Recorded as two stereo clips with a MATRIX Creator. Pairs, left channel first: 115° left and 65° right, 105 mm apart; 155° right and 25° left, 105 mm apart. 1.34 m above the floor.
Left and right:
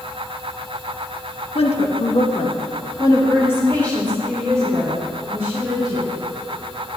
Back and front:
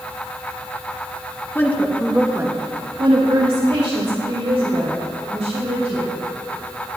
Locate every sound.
1.6 s a woman speaking: 135° left, 1.9 m; by 6.1 s 20° left, 6 m